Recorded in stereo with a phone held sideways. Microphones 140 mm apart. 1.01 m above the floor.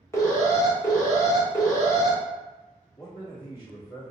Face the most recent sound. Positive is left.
turn(degrees=30)  # may be behind; listen again after turning